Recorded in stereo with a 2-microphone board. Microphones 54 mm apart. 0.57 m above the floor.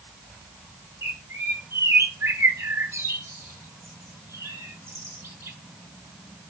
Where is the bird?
60° right (ahead or behind), 0.9 m.